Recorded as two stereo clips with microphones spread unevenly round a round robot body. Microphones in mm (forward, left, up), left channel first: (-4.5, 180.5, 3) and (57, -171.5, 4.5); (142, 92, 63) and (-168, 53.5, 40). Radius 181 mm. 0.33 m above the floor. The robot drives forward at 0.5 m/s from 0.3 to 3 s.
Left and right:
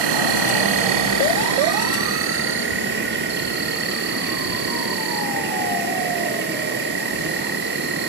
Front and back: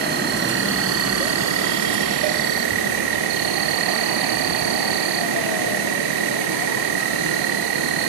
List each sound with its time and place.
0.0 s an insect: 110° right, 1.4 m; by 8.1 s 145° right, 2.5 m